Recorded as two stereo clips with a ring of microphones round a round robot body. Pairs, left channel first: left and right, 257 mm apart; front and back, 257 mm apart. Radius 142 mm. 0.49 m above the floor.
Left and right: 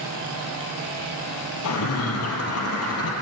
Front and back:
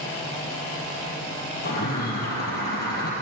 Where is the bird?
60° left, 5 m.